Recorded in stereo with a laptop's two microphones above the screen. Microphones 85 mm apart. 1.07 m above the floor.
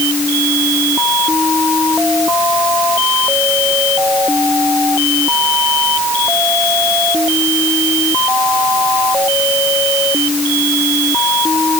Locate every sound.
Only background noise.